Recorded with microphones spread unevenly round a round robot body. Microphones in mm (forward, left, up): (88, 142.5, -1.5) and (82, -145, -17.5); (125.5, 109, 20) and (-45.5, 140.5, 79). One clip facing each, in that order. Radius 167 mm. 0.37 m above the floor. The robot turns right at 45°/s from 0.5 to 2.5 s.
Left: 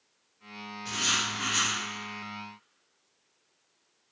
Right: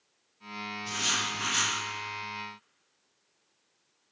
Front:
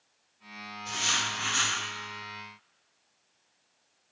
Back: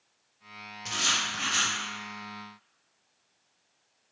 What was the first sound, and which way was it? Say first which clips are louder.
Writing: left 4 dB, back 1 dB; 165° left.